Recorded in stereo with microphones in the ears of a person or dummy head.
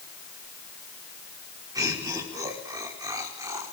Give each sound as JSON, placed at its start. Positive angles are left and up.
{"t": 1.8, "sound": "laughter", "side_deg": -20, "distance_m": 5.0}